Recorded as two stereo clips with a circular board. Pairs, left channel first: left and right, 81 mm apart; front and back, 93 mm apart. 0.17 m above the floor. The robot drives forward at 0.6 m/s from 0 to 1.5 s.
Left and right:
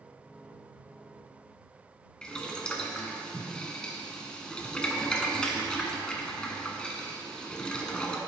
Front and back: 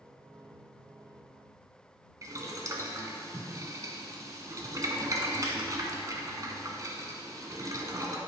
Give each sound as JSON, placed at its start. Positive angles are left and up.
{"t": 2.2, "sound": "boiling", "azimuth_deg": 165, "distance_m": 1.1}